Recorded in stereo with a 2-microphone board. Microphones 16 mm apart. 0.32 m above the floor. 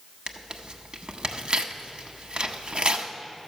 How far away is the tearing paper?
About 0.7 m.